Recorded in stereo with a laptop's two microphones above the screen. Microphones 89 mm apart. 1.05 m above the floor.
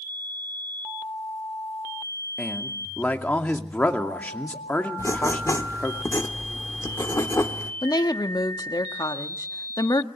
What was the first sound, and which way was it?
A man speaking, 15° left (ahead or behind).